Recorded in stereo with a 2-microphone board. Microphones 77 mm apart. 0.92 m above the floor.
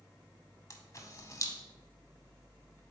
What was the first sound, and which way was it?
A camera shutter, 40° left (ahead or behind).